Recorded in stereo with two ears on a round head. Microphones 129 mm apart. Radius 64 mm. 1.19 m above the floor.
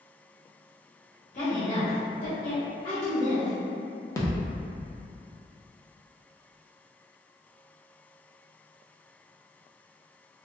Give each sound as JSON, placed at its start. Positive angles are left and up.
{"t": 1.3, "sound": "a woman speaking", "side_deg": 50, "distance_m": 1.0}
{"t": 4.2, "sound": "a thud", "side_deg": 20, "distance_m": 0.5}